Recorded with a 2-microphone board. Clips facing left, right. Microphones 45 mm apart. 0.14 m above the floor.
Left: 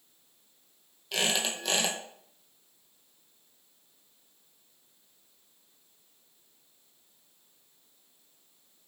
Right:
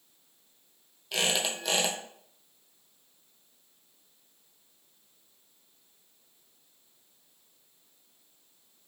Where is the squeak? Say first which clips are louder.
Even; centre (ahead or behind), 0.8 m.